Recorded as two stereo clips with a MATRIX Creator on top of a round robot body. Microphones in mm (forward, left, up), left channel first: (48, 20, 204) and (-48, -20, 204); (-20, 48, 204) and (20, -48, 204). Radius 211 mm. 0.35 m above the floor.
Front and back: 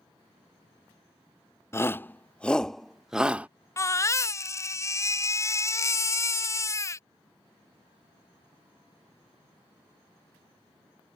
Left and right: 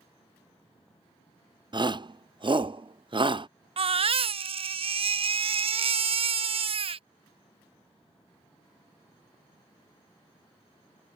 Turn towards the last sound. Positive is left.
turn(degrees=-40)